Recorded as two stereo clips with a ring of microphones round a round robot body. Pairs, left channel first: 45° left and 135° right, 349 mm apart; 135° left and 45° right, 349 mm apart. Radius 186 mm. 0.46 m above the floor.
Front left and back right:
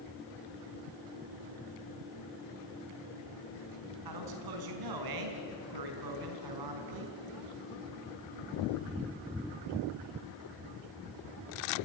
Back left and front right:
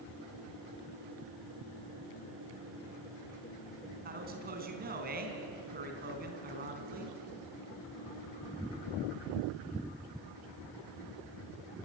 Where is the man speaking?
110° right, 4 m.